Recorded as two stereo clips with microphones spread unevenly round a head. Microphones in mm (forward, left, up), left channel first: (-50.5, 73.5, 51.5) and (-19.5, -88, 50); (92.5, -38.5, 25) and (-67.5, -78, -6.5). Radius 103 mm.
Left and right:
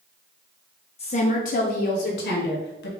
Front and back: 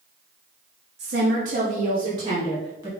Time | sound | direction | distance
1.0 | a woman speaking | 155° left | 0.6 m